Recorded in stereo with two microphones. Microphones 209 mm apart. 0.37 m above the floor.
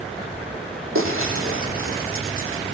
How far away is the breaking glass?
About 6.5 m.